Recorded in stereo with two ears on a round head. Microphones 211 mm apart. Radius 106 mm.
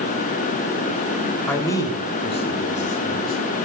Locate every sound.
1.5 s a man speaking: 10° left (ahead or behind), 3.5 m; by 3.4 s 40° left (ahead or behind), 5.5 m